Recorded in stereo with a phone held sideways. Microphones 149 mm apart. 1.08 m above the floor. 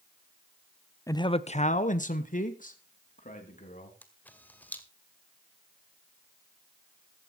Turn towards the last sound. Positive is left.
turn(degrees=10)  # may be behind; listen again after turning